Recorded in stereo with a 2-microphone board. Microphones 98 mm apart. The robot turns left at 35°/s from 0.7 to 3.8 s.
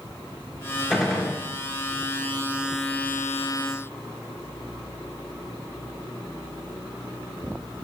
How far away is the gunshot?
About 2.5 m.